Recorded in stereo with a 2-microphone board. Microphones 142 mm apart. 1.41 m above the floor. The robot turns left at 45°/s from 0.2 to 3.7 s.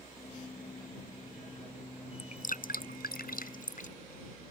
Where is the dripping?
50° left (ahead or behind); by 3.9 s 60° left (ahead or behind).